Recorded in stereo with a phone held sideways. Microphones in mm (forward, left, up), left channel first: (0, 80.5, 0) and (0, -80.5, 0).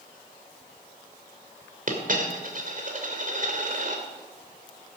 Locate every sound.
1.9 s a dropped coin: 60° right (ahead or behind), 2 m